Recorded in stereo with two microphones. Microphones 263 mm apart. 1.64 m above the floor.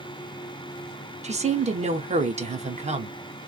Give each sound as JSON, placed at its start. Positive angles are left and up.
{"t": 1.2, "sound": "a woman speaking", "side_deg": -25, "distance_m": 0.6}